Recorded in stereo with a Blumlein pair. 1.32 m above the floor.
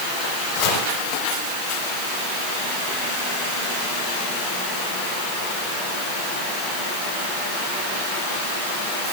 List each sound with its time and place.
0.6 s chopping: 40° left, 5 m